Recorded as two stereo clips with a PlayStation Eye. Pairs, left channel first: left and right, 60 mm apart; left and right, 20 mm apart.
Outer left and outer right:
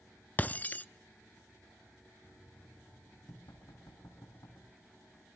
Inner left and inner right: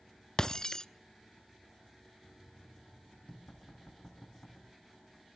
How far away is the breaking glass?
About 0.5 m.